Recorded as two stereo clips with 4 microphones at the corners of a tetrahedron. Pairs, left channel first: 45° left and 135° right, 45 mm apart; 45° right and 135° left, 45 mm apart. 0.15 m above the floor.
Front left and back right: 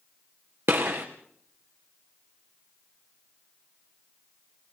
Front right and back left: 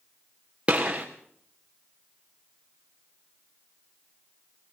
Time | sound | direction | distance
0.7 | a gunshot | 160° right | 3 m